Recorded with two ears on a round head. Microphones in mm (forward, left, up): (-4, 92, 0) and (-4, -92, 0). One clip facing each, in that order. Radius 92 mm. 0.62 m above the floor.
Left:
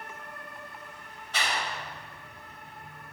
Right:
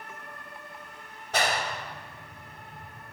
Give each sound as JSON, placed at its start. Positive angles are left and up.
{"t": 1.3, "sound": "a clap", "side_deg": -40, "distance_m": 2.5}